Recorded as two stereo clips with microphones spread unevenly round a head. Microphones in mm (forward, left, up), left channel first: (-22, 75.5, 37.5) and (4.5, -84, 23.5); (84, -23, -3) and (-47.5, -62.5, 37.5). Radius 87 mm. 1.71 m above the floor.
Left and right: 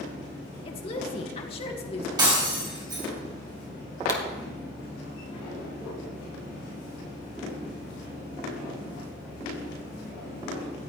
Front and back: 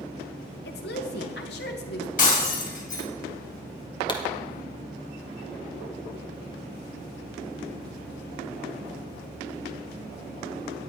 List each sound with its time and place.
0.7 s a woman speaking: 40° left, 1.9 m
2.2 s breaking glass: 10° right, 4.5 m
4.1 s a pop: 80° left, 1.5 m